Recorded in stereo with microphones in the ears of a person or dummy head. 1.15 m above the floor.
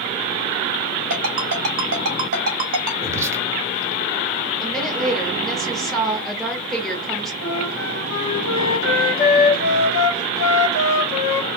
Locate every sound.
1.1 s a ringtone: 50° right (ahead or behind), 1.9 m
3.0 s whispering: 10° right (ahead or behind), 0.8 m
4.6 s a woman speaking: centre (ahead or behind), 1.2 m
7.4 s a flute: 80° left, 1.9 m